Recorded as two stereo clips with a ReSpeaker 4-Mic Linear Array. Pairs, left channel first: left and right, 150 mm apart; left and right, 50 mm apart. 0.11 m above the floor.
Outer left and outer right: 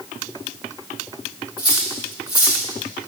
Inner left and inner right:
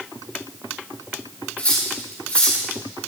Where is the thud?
I don't hear a thud.